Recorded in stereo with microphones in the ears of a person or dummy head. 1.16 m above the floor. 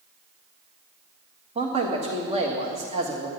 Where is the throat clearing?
No throat clearing in this recording.